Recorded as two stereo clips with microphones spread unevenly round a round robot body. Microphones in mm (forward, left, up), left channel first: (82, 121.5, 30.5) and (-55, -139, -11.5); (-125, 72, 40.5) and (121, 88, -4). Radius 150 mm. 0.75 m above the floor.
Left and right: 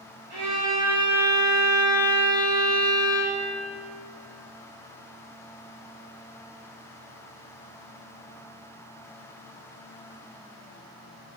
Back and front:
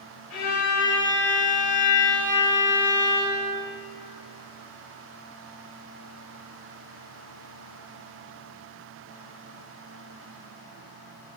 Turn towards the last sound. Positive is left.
turn(degrees=160)